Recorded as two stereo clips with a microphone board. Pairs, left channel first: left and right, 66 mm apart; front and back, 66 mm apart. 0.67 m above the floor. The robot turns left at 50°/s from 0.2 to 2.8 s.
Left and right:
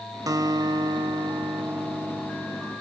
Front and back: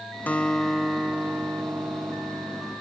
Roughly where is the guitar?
Ahead right.